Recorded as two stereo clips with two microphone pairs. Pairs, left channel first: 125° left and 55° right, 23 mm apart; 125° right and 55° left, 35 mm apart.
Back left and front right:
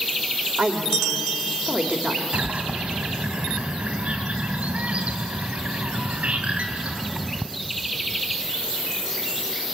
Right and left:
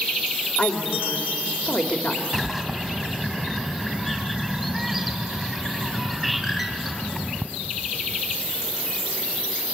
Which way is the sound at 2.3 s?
45° right.